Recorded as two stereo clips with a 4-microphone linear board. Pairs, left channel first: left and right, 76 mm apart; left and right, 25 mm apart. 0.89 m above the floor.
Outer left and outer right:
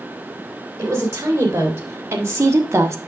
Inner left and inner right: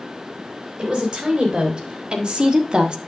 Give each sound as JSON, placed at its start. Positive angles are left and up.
{"t": 0.8, "sound": "a woman speaking", "side_deg": -35, "distance_m": 4.0}